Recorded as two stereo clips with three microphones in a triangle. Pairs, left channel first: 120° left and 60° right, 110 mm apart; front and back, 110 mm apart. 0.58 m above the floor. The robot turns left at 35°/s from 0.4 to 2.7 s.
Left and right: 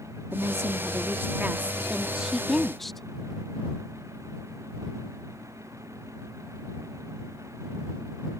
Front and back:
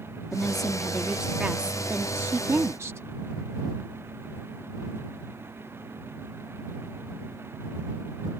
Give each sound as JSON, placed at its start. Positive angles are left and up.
{"t": 0.3, "sound": "a woman speaking", "azimuth_deg": -75}